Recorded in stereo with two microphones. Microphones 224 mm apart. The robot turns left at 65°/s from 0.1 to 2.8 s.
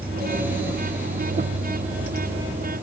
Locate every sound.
Only background noise.